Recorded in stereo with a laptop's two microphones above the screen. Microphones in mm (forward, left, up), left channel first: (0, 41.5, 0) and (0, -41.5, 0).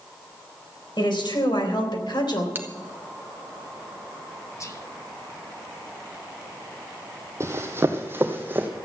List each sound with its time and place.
1.0 s a woman speaking: 80° left, 4 m; by 2.5 s 75° left (ahead or behind), 3 m
2.5 s a bell: 25° right (ahead or behind), 1.3 m
4.6 s whispering: 40° left (ahead or behind), 1.3 m
7.4 s running footsteps: 35° right (ahead or behind), 1.8 m; by 8.7 s 25° right (ahead or behind), 2.5 m